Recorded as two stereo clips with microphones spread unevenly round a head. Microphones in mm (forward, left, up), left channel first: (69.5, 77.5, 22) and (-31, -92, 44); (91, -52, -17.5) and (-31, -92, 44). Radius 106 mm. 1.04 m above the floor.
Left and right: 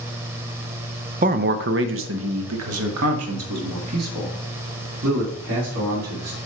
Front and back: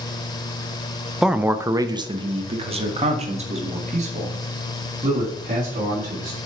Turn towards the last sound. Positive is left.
turn(degrees=-135)